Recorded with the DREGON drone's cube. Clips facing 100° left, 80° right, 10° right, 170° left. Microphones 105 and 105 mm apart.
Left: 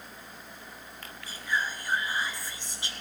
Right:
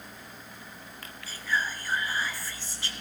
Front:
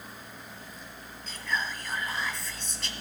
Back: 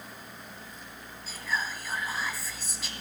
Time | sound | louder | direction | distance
1.3 | whispering | right 1 dB, even | 95° left | 1.1 m